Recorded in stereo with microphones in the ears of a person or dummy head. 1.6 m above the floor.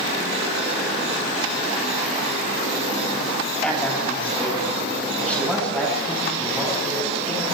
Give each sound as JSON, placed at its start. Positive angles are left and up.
{"t": 3.6, "sound": "a man speaking", "side_deg": 0, "distance_m": 10.0}